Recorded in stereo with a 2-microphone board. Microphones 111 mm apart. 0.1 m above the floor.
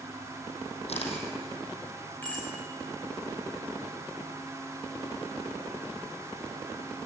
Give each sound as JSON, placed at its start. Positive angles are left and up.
{"t": 0.9, "sound": "a camera shutter", "side_deg": 70, "distance_m": 4.5}
{"t": 2.2, "sound": "a bicycle bell", "side_deg": 15, "distance_m": 6.5}